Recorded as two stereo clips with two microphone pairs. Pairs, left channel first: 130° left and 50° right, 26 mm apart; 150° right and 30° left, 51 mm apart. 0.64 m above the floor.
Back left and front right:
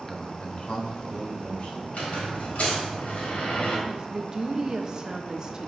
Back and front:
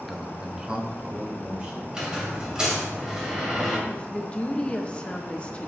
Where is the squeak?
100° left, 1.7 m.